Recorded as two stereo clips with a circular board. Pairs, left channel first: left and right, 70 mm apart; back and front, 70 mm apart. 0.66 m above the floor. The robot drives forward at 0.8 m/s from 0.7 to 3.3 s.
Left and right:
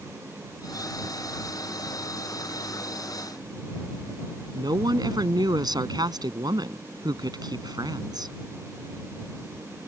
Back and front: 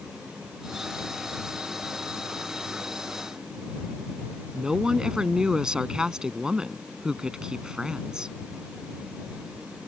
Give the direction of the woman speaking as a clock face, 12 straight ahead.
3 o'clock.